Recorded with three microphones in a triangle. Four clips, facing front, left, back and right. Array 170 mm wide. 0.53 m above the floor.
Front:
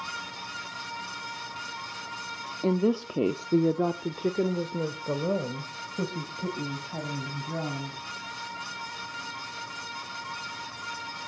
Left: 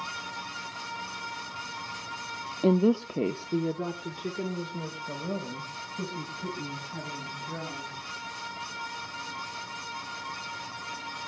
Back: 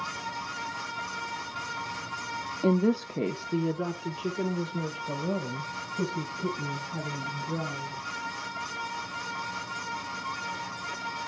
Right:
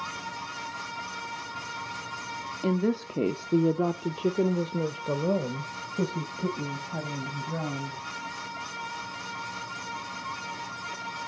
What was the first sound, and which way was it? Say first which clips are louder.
A woman speaking: left 4 dB, even; 95° left.